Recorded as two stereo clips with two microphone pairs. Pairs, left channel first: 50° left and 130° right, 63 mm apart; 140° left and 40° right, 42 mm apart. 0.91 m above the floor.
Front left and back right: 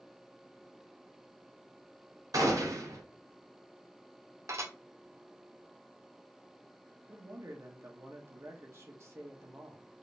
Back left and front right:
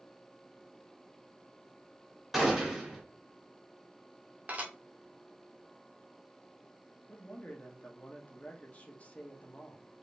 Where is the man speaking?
165° right, 1.3 m.